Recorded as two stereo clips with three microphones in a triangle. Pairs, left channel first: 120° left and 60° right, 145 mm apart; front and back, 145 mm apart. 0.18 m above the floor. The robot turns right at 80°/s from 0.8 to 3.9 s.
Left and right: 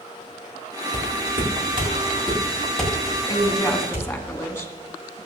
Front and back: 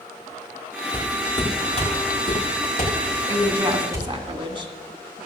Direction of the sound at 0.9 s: 100° right.